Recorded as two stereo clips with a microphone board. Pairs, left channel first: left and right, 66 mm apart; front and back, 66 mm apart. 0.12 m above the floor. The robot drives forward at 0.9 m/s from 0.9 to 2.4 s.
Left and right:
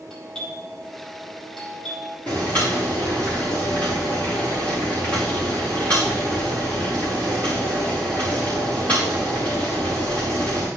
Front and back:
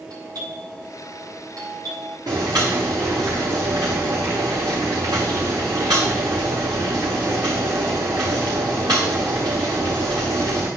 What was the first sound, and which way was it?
A doorbell, 175° left.